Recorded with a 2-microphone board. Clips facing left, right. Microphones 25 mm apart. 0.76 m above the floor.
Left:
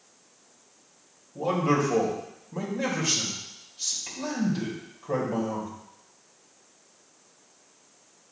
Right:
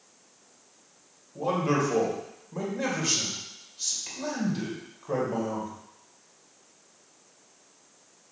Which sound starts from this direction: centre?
A man speaking, at 1.4 s.